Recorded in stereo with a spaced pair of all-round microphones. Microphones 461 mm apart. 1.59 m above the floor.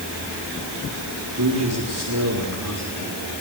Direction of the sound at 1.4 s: 45° right (ahead or behind).